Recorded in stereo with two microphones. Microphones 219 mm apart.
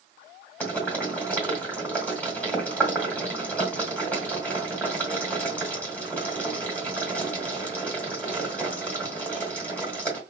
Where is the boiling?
5° left (ahead or behind), 2.0 m.